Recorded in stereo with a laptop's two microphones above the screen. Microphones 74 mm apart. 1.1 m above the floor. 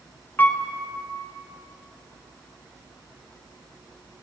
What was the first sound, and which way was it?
A piano, 25° left (ahead or behind).